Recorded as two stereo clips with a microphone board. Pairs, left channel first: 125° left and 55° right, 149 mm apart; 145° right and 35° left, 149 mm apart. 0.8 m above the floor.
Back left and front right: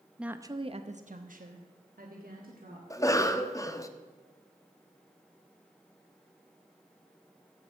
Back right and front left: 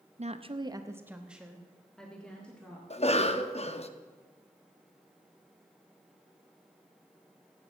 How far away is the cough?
About 0.8 m.